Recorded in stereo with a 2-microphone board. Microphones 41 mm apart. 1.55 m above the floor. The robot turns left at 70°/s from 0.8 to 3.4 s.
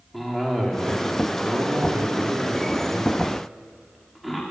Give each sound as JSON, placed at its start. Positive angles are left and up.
{"t": 0.1, "sound": "a cough", "azimuth_deg": 5, "distance_m": 5.0}